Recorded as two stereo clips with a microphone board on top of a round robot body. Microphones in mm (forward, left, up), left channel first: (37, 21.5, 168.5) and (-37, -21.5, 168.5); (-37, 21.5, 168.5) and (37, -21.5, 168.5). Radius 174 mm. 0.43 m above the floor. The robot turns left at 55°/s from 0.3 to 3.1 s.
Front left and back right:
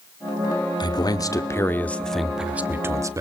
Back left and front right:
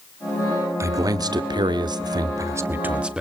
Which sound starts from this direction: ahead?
A man speaking, at 0.8 s.